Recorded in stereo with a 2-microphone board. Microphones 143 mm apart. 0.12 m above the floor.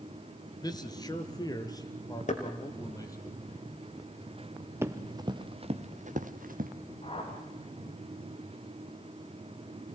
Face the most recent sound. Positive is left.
turn(degrees=40)  # may be behind; listen again after turning